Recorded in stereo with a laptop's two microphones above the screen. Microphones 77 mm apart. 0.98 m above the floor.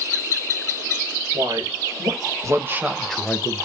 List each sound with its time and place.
1.3 s a man speaking: 65° right (ahead or behind), 2.5 m; by 3.7 s 45° left (ahead or behind), 1.1 m